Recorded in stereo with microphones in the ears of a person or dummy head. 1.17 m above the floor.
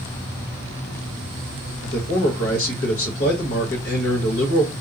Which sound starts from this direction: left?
A man speaking, at 1.8 s.